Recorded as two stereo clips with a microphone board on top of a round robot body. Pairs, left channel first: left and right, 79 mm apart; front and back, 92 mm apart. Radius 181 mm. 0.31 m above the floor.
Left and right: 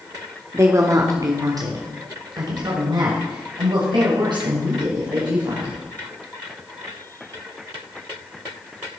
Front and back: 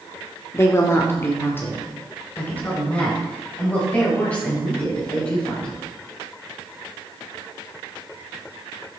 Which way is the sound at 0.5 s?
50° right.